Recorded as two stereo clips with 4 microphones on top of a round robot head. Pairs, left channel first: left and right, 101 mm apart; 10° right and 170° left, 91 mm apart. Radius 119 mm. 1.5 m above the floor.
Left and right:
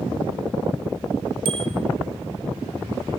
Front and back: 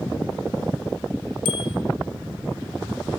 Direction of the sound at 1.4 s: 50° right.